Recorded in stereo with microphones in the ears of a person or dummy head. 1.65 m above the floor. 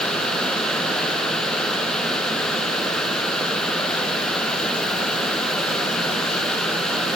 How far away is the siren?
I don't hear a siren.